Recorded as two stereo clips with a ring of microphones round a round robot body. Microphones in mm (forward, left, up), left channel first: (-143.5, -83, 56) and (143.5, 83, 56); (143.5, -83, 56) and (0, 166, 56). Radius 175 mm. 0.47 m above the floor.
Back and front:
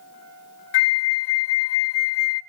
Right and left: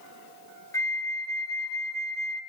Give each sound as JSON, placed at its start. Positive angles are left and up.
{"t": 0.7, "sound": "a flute", "azimuth_deg": -140, "distance_m": 0.8}